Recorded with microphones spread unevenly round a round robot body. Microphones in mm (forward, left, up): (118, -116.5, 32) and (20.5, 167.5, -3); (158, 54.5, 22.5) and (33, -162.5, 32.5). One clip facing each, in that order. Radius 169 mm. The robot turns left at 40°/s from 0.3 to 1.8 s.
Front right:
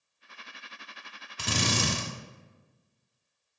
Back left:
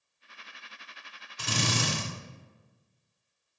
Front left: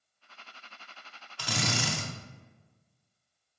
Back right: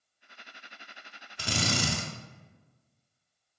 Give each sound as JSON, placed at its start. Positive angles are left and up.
{"t": 1.4, "sound": "a drill", "azimuth_deg": -50, "distance_m": 0.7}